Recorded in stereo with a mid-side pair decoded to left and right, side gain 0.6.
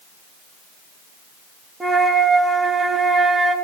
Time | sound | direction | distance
1.8 | a flute | 15° right | 2.5 m